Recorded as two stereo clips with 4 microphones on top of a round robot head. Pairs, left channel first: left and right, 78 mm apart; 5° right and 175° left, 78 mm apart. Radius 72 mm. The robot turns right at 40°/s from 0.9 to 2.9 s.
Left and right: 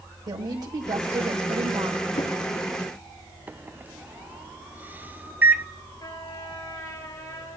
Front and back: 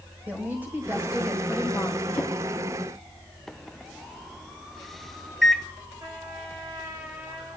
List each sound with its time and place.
0.3 s a woman speaking: 115° right, 2 m; by 2.0 s 70° right, 2 m
2.1 s a drawer: 70° left, 3 m; by 2.3 s 75° left, 3 m
3.5 s a microwave: 85° right, 0.6 m
6.0 s a trumpet: 130° left, 4.5 m